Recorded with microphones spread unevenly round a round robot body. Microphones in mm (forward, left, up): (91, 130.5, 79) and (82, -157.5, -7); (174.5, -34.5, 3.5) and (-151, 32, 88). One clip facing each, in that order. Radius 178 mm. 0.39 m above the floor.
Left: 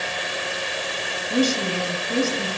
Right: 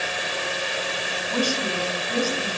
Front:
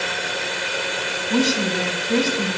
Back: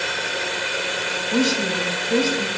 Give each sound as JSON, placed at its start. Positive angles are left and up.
{"t": 1.3, "sound": "a woman speaking", "azimuth_deg": 20, "distance_m": 3.0}